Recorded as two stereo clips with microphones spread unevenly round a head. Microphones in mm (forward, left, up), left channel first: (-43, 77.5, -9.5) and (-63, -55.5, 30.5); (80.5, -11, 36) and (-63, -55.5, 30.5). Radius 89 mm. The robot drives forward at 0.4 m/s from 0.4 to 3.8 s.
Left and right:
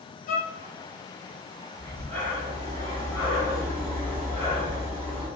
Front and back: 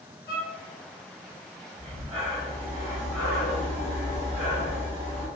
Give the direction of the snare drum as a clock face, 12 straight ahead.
No snare drum in this recording.